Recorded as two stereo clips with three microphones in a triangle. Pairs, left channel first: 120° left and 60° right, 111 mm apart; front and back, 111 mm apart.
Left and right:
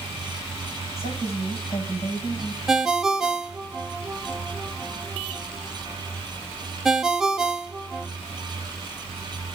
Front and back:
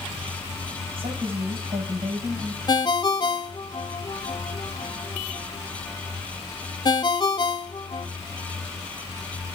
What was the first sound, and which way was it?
A woman speaking, 145° left.